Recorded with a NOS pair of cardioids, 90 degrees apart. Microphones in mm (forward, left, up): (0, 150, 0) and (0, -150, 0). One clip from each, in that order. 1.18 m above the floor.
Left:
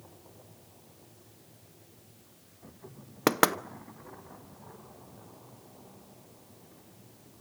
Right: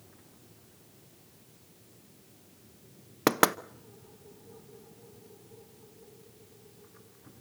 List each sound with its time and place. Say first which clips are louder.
3.3 s knocking: even; straight ahead, 0.5 m